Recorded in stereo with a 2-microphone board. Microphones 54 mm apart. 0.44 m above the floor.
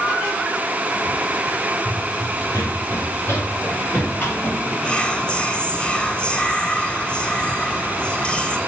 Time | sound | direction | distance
1.9 | running footsteps | 65° left (ahead or behind) | 6 m
4.8 | whispering | 15° left (ahead or behind) | 2.5 m